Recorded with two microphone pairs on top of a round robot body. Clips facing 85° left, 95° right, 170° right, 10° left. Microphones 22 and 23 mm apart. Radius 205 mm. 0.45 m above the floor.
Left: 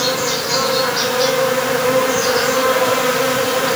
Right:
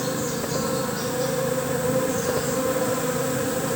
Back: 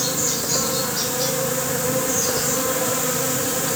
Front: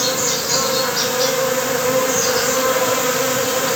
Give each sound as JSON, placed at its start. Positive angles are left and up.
{"t": 0.0, "sound": "an insect", "azimuth_deg": 70, "distance_m": 1.1}